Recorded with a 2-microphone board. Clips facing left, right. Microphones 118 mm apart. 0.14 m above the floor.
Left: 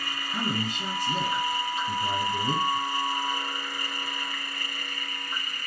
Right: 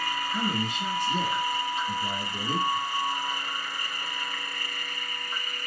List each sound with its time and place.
0.3 s a man speaking: 40° left (ahead or behind), 1.8 m